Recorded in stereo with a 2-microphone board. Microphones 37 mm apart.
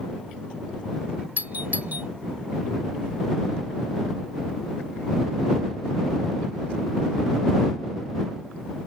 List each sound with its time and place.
1.4 s a doorbell: 55° right (ahead or behind)